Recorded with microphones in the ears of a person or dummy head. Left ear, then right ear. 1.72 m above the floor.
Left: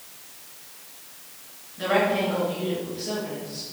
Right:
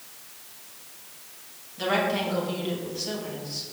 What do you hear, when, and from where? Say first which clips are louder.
1.8 s a woman speaking: left 3 dB; 30° right (ahead or behind), 2.5 m